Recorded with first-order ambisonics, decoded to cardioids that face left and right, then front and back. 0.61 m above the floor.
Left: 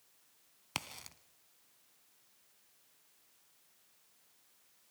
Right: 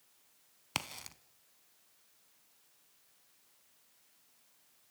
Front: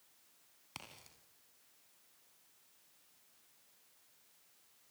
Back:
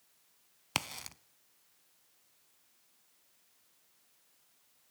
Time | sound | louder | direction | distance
0.8 | a crack | right 3 dB, back 16 dB | 170° right | 0.7 m